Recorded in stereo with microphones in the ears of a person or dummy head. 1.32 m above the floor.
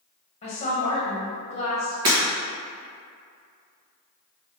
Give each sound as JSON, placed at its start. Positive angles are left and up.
{"t": 0.4, "sound": "a woman speaking", "side_deg": 35, "distance_m": 0.9}
{"t": 2.0, "sound": "breaking glass", "side_deg": -25, "distance_m": 1.5}